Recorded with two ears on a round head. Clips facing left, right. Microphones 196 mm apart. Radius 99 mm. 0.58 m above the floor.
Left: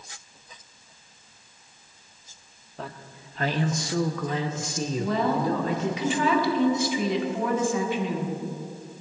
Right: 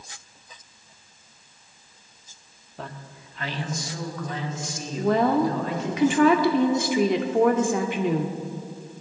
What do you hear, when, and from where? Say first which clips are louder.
2.8 s a man speaking: even; centre (ahead or behind), 0.7 m; by 6.0 s 75° left (ahead or behind), 2 m
5.0 s a woman speaking: right 6 dB; 45° right (ahead or behind), 1.2 m